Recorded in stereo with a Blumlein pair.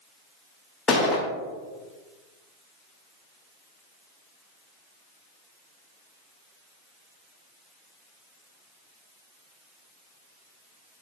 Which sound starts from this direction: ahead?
A gunshot, at 0.9 s.